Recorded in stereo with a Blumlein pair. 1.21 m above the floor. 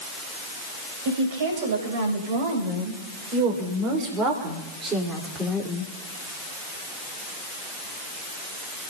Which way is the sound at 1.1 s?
55° right.